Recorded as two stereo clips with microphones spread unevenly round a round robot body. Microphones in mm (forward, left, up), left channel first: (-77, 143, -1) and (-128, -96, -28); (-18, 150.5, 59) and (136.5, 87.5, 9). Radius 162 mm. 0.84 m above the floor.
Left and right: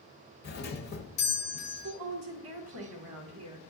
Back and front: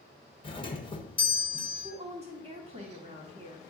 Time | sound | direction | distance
0.4 | a doorbell | 90° left | 1.0 m
1.8 | a woman speaking | 70° right | 1.1 m